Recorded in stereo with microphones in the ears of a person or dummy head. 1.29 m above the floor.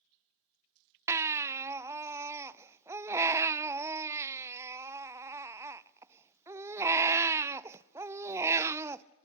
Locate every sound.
1.1 s a baby crying: 15° right (ahead or behind), 0.5 m